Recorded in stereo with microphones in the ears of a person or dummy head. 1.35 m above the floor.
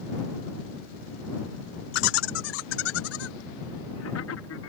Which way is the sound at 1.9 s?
60° left (ahead or behind).